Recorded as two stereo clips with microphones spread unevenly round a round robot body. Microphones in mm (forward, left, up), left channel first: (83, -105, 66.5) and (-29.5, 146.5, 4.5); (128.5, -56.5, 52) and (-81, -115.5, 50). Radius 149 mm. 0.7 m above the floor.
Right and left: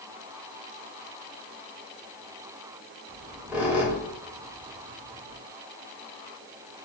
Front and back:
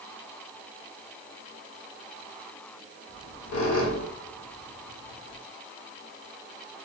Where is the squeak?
20° left, 0.6 m.